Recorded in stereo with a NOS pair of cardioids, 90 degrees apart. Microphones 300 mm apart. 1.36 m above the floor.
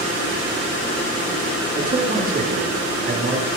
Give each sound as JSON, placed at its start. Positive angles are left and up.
{"t": 1.8, "sound": "a man speaking", "azimuth_deg": -25, "distance_m": 5.0}